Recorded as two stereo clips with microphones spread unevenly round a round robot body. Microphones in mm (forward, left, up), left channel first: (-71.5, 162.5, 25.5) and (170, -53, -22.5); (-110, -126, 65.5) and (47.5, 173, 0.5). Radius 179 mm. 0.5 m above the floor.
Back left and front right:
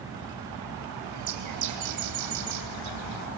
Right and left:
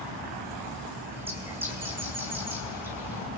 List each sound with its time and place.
1.1 s a bird: 20° right, 3.5 m